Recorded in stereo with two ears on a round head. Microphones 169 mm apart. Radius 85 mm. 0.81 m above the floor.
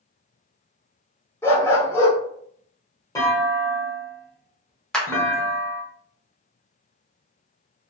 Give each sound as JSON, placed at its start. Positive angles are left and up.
{"t": 1.4, "sound": "a dog barking", "side_deg": 15, "distance_m": 0.8}
{"t": 3.1, "sound": "a clunk", "side_deg": 20, "distance_m": 0.9}
{"t": 4.9, "sound": "a clap", "side_deg": 5, "distance_m": 0.5}